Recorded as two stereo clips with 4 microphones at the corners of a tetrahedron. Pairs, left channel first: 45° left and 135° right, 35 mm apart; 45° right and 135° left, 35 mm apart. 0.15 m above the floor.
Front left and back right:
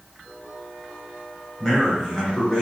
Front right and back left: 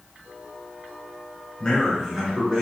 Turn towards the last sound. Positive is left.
turn(degrees=90)